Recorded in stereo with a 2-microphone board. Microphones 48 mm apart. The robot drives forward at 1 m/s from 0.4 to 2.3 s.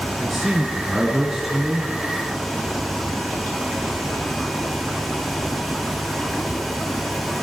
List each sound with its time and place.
0.2 s a man speaking: 5° right (ahead or behind), 2.5 m